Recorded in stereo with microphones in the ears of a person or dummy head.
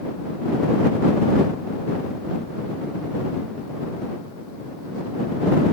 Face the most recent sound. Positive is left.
No sound to turn to.